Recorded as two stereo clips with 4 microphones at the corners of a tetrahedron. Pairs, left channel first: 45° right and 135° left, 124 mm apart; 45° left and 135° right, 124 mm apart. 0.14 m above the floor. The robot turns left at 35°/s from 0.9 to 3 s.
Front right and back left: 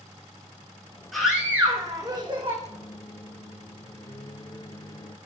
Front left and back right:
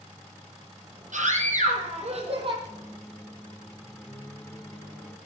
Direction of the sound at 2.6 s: 10° right.